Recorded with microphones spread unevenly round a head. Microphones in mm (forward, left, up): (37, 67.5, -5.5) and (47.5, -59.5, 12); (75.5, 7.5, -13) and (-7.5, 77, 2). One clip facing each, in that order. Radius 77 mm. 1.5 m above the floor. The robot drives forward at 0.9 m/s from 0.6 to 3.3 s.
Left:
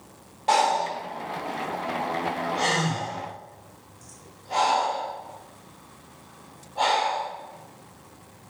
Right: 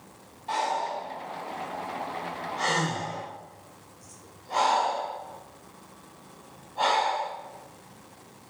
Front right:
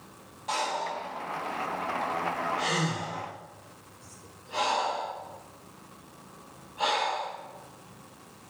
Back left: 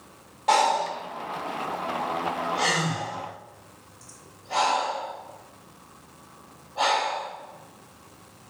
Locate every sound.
0.5 s breathing: 120° left, 0.9 m; by 7.3 s 165° left, 3 m